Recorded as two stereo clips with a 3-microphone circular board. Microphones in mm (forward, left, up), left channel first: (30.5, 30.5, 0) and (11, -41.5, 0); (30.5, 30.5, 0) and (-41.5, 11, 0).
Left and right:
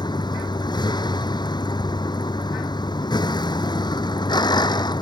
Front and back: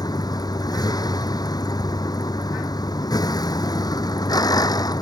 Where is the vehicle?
50° left.